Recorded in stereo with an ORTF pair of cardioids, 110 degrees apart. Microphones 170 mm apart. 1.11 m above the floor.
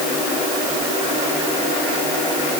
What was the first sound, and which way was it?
Only background noise.